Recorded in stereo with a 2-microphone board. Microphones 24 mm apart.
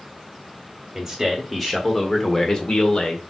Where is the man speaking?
10° right (ahead or behind), 1.6 m; by 3.2 s 40° left (ahead or behind), 1.6 m.